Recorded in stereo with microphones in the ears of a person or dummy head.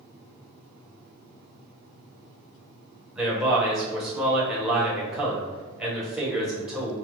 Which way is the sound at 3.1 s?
5° right (ahead or behind).